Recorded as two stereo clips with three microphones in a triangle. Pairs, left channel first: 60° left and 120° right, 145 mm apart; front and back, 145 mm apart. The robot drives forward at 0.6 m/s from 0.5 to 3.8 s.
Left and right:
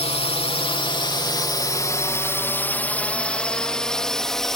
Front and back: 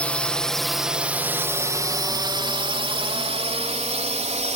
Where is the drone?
75° left; by 4.6 s 145° left.